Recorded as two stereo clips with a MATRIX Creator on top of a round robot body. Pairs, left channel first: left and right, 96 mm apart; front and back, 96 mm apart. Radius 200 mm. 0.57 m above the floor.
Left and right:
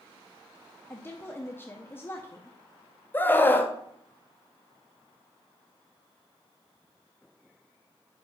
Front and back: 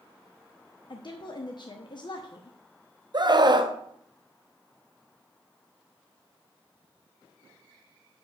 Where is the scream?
155° left, 1.1 m.